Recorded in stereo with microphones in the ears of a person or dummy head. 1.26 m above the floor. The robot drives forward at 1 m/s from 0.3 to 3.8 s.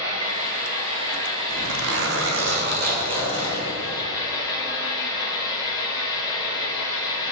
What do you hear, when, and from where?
0.0 s an engine running: 45° right (ahead or behind), 3 m; by 7.3 s 20° right (ahead or behind), 6 m
1.5 s a zipper: 65° right (ahead or behind), 1.3 m; by 4.0 s 30° right (ahead or behind), 2 m